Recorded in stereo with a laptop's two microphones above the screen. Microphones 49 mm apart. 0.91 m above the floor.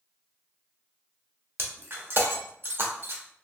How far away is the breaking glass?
About 0.9 m.